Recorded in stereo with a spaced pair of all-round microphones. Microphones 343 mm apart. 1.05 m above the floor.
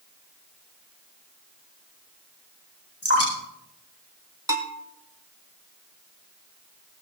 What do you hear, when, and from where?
3.0 s dripping: 45° left (ahead or behind), 8 m
4.5 s a bell: 10° right (ahead or behind), 2 m